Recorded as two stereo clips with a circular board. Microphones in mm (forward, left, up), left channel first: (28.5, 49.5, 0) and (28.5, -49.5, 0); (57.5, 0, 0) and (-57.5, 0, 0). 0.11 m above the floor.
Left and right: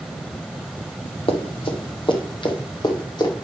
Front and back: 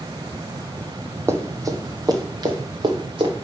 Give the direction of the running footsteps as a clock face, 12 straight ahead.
8 o'clock.